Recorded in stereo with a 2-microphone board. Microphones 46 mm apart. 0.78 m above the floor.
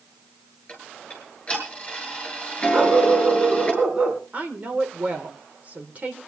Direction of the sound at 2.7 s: 25° right (ahead or behind).